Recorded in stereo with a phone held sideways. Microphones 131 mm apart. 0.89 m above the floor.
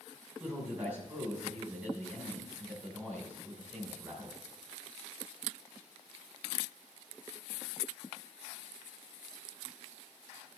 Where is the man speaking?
10° right (ahead or behind), 2.5 m.